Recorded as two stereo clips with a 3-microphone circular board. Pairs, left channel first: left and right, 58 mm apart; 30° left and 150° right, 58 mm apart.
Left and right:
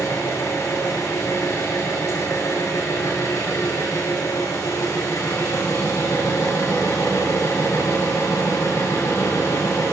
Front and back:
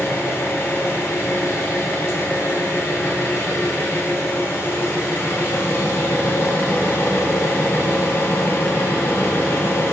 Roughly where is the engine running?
Left.